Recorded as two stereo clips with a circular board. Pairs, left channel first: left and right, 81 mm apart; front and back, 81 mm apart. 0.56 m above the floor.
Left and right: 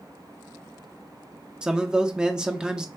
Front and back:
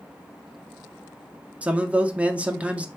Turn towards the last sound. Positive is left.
turn(degrees=-150)